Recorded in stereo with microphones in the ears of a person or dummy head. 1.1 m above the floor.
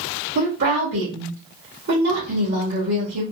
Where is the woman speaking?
60° right (ahead or behind), 1.0 m.